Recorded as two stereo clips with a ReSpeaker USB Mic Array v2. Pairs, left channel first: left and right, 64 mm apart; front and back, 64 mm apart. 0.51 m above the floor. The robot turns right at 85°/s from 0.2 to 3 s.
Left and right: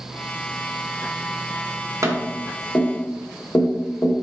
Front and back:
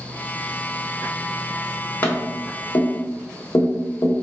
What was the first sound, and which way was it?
Tapping, 60° right.